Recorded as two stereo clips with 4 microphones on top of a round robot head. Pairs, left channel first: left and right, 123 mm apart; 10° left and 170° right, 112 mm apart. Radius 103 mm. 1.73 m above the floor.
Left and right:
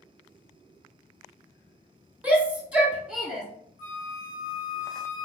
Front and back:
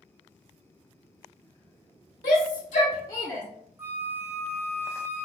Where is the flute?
120° left, 0.5 m.